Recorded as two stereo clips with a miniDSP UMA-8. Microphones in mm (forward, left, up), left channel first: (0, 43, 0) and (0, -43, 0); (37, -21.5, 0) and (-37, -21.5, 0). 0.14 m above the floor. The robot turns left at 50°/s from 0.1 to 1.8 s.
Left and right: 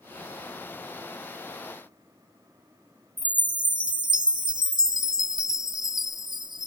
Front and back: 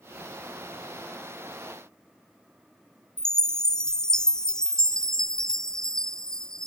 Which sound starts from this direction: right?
A chime, at 3.2 s.